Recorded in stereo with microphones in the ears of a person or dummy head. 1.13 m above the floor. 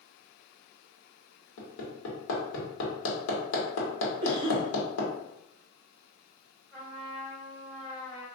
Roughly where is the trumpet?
Centre.